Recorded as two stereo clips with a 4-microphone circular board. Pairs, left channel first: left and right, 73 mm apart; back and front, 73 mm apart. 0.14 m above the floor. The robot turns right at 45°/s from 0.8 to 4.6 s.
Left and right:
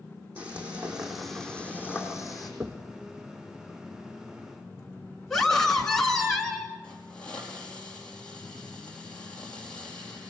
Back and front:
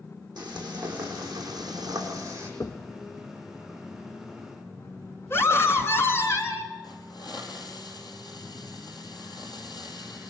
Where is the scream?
165° left, 1.6 m.